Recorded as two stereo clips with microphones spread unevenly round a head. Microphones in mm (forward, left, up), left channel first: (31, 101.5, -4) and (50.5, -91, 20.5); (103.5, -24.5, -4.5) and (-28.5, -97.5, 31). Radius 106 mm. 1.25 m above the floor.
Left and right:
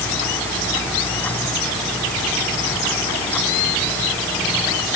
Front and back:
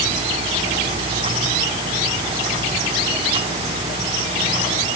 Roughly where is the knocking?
No knocking in this recording.